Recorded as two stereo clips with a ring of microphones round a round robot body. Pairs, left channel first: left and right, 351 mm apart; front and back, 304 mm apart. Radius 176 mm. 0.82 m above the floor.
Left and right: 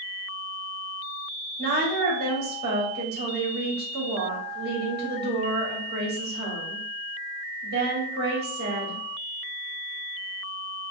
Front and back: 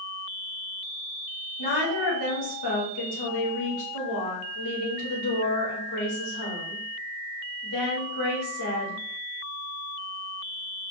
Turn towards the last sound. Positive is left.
turn(degrees=-30)